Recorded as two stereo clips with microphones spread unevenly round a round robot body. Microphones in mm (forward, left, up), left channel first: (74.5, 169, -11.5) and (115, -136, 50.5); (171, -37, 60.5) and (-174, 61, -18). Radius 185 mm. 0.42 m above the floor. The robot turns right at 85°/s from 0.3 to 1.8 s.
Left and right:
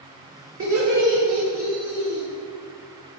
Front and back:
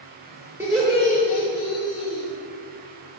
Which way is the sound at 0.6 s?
130° right.